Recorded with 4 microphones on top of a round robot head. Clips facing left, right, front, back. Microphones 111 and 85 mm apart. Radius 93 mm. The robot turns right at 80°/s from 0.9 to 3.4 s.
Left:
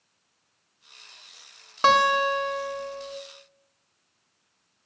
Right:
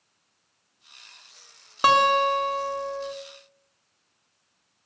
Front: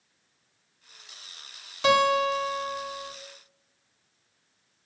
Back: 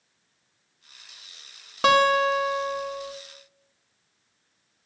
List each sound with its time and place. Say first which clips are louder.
1.8 s a guitar: right 1 dB, back 3 dB; 170° right, 2.5 m; by 3.1 s 65° right, 2.5 m